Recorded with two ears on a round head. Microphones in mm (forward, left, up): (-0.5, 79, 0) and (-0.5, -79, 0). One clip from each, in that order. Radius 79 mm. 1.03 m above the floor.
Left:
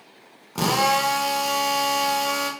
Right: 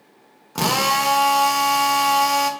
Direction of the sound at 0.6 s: 15° right (ahead or behind).